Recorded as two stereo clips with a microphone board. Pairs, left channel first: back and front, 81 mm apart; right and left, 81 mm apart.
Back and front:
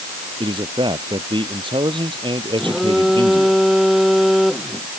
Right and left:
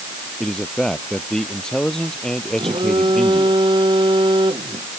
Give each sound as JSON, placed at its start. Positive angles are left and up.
{"t": 0.4, "sound": "a man speaking", "azimuth_deg": -10}
{"t": 2.6, "sound": "a phone buzzing", "azimuth_deg": 85}